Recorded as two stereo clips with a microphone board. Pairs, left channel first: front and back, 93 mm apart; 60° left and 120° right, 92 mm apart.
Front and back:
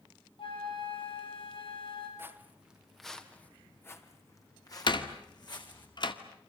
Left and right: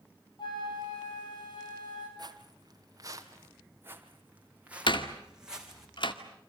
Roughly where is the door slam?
Ahead left.